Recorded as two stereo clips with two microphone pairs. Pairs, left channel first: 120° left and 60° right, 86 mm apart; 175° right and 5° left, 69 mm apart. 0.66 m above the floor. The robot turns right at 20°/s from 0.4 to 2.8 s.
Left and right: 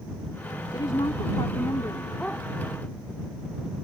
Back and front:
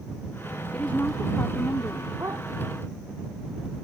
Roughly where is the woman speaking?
Behind left.